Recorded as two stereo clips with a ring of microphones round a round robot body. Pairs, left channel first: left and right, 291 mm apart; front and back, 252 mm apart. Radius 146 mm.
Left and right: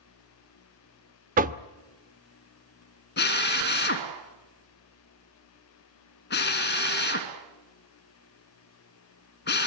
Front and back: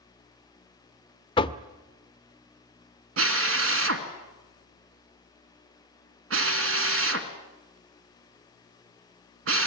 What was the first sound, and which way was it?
Knocking, 55° right.